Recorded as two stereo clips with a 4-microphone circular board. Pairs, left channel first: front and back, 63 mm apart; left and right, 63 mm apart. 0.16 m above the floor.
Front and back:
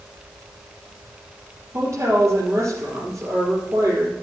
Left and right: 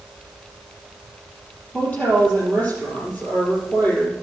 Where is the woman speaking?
155° left, 4.5 m.